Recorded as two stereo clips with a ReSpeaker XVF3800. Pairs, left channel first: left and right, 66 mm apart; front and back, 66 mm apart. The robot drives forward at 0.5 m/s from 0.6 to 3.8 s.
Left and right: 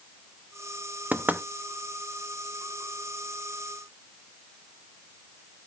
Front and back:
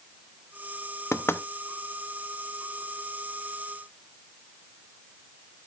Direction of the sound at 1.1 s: 30° right.